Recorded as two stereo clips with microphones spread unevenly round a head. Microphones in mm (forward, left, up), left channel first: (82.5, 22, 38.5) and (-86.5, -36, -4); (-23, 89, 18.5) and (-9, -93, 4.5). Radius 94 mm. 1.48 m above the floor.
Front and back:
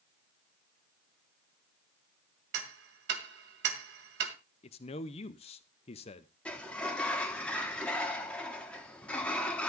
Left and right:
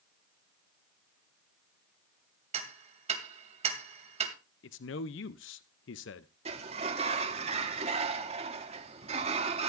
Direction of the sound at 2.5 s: 135° right.